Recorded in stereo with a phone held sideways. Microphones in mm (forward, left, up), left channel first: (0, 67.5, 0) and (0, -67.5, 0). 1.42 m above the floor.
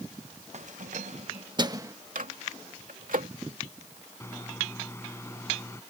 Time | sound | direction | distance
0.5 | keys jangling | 55° right (ahead or behind) | ?
2.1 | a microwave | 80° right | ?
4.2 | a microwave | 20° left (ahead or behind) | ?